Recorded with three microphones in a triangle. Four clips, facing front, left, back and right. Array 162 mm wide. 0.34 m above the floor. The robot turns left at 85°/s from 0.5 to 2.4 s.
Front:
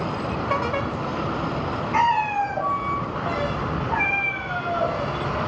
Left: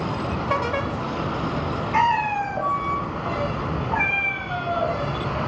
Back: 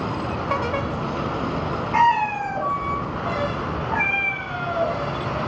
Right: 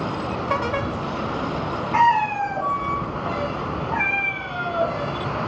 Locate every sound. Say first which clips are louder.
1.9 s a cat meowing: right 3 dB, back 2 dB; 120° right, 1.4 m; by 5.5 s 160° right, 1.4 m